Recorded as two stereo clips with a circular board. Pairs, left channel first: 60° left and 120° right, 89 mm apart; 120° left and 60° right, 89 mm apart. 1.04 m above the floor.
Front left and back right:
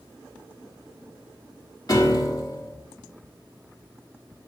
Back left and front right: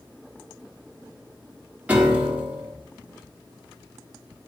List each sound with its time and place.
1.9 s a piano: 15° left, 1.3 m